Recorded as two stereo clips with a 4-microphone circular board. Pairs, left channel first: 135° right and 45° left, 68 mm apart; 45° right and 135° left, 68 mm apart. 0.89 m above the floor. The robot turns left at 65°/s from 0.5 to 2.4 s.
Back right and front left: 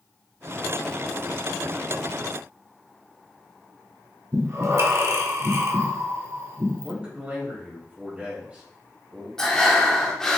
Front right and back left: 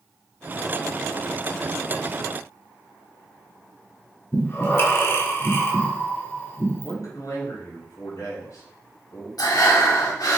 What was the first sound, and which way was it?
Breathing, 5° left.